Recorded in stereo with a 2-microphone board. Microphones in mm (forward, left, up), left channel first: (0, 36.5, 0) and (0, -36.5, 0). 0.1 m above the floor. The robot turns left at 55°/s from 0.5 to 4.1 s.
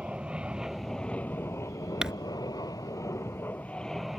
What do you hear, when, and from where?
0.0 s an aircraft: 165° right; by 4.2 s straight ahead
2.0 s crumpling: 10° right (ahead or behind)